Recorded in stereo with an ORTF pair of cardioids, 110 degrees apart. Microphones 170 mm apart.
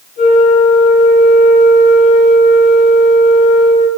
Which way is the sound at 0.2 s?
60° left.